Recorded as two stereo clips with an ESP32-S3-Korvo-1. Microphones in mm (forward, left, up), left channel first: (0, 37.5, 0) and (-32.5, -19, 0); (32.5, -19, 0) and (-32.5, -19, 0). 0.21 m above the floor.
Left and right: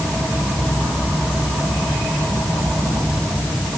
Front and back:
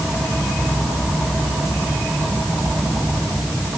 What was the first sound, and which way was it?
Only background noise.